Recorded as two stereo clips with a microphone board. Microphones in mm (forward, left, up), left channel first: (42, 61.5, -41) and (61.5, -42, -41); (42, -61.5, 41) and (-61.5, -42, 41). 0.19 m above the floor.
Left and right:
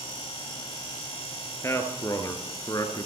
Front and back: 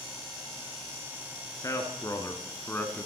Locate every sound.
1.6 s a man speaking: 40° left, 2.5 m; by 3.1 s 65° left, 1.8 m